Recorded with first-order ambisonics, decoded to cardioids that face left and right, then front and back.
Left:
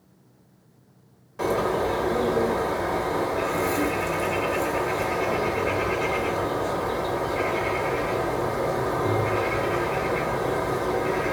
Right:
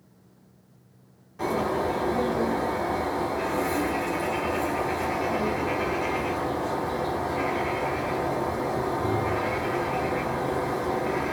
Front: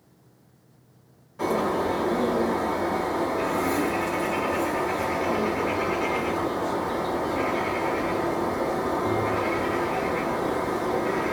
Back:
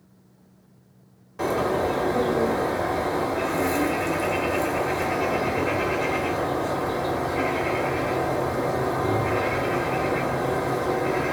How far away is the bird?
About 1.0 m.